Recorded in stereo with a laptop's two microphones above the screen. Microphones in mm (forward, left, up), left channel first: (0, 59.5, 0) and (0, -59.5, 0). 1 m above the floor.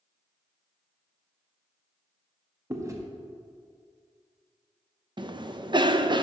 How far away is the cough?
About 0.5 m.